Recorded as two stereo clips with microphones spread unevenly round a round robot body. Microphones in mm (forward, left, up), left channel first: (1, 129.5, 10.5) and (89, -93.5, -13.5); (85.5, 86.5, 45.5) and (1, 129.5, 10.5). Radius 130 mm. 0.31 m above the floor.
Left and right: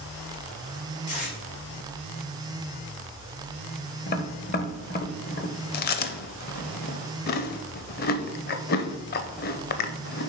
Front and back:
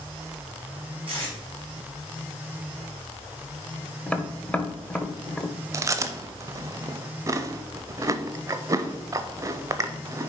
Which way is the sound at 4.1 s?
65° left.